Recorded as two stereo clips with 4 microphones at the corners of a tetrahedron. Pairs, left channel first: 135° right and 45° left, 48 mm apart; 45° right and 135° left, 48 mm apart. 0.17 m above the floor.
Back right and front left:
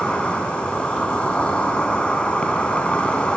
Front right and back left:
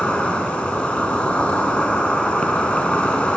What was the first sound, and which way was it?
An insect, 90° right.